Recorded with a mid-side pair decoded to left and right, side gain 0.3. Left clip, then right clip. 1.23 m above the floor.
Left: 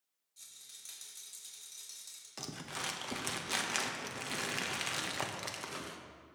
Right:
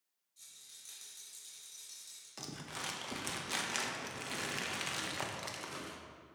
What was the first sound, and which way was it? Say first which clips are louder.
A rattle: left 2 dB; 45° left.